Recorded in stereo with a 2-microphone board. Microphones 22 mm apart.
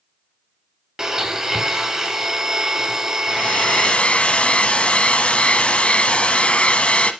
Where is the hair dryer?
55° left (ahead or behind), 1.0 m.